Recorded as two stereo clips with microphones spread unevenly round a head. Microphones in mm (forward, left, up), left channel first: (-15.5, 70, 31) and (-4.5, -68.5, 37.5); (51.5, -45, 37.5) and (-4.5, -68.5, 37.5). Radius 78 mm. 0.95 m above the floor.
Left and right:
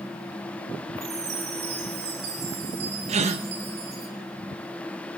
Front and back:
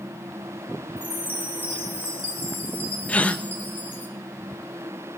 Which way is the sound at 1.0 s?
35° right.